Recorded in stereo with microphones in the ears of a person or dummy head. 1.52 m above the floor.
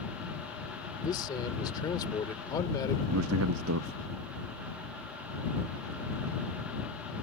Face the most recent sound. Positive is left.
turn(degrees=-85)